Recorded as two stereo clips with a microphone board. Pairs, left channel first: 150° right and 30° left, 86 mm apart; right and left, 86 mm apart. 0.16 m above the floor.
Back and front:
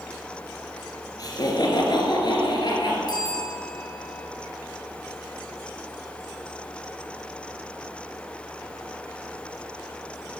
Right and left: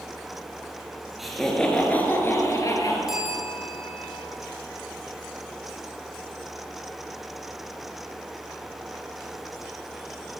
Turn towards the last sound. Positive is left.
turn(degrees=175)